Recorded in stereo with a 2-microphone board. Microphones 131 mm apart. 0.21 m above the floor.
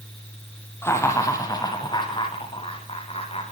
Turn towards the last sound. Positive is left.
turn(degrees=50)  # may be behind; listen again after turning